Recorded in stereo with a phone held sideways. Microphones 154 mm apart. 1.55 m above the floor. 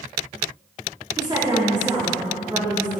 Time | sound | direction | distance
1.2 | a woman speaking | 30° right (ahead or behind) | 3.5 m